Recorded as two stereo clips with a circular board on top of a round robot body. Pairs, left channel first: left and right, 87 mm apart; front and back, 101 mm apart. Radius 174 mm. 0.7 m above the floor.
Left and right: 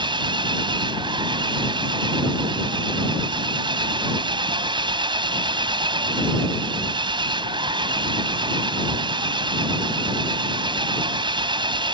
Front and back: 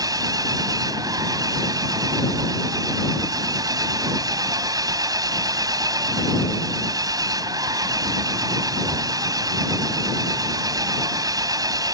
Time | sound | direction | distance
0.0 | an engine running | 125° right | ?